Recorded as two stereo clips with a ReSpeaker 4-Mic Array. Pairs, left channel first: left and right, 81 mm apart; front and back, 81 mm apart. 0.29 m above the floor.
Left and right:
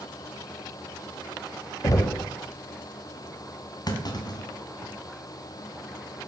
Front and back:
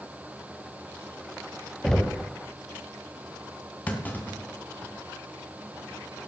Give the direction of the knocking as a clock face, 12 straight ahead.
9 o'clock.